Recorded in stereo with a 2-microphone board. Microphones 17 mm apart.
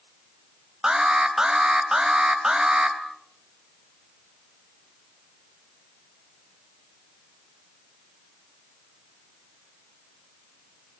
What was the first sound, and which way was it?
An alarm, 40° right (ahead or behind).